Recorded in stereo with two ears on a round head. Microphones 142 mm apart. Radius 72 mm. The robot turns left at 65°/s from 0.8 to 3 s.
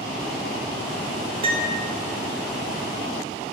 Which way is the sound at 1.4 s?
35° right (ahead or behind).